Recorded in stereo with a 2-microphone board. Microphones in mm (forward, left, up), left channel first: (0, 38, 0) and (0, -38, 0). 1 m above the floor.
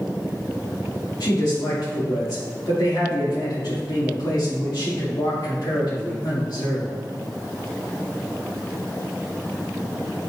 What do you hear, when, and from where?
1.2 s a man speaking: 70° left (ahead or behind), 2 m